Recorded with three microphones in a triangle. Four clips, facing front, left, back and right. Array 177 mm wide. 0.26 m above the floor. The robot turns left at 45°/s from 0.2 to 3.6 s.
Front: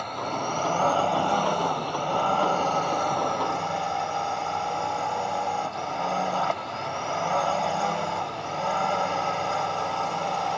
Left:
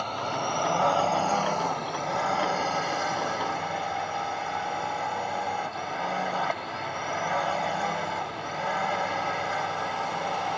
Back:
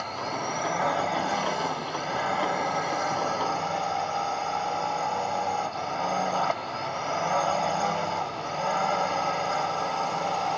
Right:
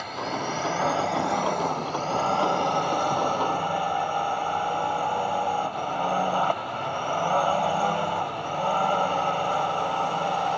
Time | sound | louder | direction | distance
0.0 | a drone | even, front 2 dB | 65° left | ?